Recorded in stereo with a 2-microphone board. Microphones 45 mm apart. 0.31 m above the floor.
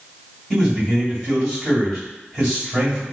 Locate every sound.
0.5 s a man speaking: 10° right (ahead or behind), 1.7 m